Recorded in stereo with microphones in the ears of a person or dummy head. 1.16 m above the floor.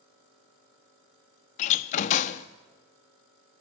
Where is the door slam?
40° left (ahead or behind), 0.9 m.